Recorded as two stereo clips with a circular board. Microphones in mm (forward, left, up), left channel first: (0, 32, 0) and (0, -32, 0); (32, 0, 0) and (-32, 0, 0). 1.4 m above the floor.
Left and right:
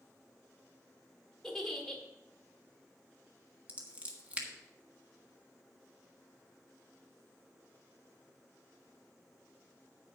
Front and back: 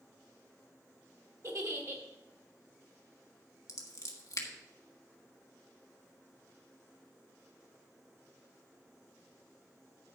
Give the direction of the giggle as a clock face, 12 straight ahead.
6 o'clock.